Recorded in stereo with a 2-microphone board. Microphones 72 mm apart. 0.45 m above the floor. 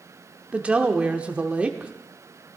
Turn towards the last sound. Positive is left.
turn(degrees=-20)  # may be behind; listen again after turning